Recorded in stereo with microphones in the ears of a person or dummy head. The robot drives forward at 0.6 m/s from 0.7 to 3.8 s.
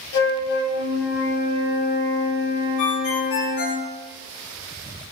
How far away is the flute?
About 0.7 m.